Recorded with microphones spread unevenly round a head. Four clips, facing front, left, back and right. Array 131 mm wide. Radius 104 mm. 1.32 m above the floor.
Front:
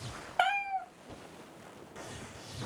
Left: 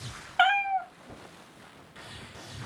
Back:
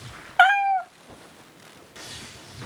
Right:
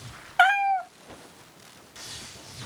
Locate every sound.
0.4 s a cat meowing: 135° right, 0.6 m